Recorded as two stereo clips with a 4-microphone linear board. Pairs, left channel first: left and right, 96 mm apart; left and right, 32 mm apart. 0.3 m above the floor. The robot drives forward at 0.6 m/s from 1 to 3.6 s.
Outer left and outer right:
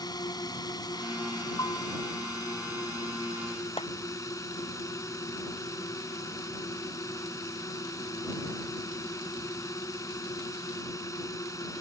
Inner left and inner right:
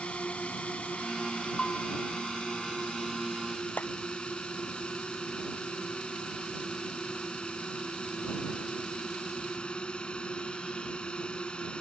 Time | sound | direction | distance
0.0 | a drone | 45° left (ahead or behind) | ?
1.6 | a bell | 40° left (ahead or behind) | ?
3.8 | a clap | 80° left | ?